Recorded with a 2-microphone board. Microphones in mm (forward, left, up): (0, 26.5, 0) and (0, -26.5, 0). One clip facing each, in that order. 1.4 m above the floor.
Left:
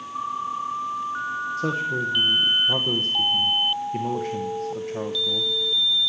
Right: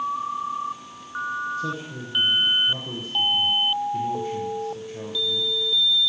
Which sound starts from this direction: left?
A man speaking, at 1.6 s.